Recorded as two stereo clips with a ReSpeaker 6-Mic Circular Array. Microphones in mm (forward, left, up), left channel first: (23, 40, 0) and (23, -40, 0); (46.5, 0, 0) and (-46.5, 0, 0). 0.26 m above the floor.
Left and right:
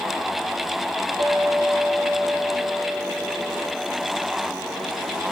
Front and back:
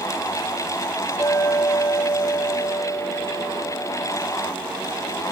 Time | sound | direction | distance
1.2 | a clink | 70° right | 4.5 m